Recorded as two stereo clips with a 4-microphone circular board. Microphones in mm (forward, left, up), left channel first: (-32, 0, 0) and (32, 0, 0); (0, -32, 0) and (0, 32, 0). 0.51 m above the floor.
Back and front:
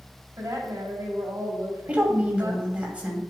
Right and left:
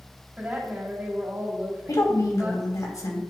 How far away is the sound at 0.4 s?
About 3 m.